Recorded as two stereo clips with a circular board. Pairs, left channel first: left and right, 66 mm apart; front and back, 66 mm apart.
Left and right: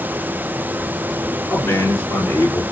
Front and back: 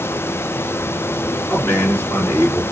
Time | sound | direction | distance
1.5 | a man speaking | 50° left | 2.5 m